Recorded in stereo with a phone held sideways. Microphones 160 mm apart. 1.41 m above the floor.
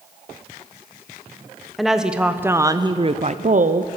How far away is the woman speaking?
About 0.9 m.